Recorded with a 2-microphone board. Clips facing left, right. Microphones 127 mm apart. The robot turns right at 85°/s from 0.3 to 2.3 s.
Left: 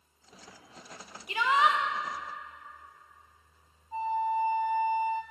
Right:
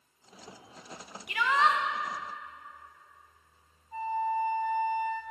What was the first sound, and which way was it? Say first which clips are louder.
A shout: left 1 dB; 130° left.